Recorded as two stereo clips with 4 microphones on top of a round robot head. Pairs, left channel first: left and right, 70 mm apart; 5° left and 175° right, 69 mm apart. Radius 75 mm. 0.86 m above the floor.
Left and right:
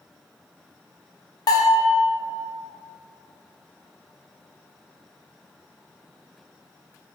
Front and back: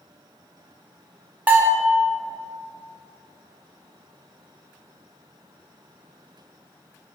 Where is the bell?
120° left, 1.5 m.